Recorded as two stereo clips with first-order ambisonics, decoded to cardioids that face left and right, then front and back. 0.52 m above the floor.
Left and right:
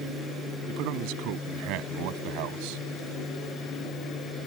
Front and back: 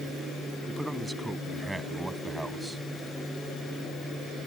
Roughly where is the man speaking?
Right.